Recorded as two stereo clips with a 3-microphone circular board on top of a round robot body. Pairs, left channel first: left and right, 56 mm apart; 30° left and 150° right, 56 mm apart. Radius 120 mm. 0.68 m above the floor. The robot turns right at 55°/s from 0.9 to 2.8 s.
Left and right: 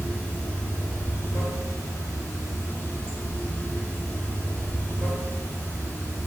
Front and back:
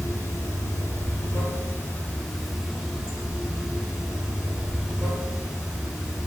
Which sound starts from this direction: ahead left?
Running water, at 0.0 s.